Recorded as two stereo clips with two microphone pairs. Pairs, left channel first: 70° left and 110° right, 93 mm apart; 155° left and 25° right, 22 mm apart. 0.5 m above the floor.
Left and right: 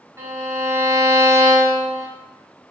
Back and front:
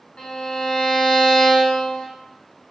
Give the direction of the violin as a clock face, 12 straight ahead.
6 o'clock.